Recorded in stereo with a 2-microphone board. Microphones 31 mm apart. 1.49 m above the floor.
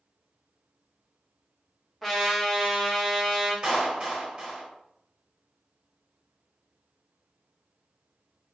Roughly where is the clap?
Right.